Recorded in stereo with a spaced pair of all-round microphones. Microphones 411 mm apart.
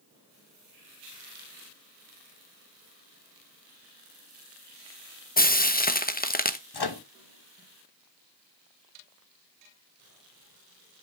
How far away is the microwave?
About 0.8 m.